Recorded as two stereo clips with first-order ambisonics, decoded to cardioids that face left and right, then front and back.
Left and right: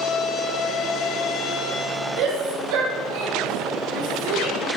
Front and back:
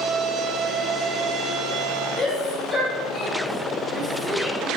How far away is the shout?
About 5 m.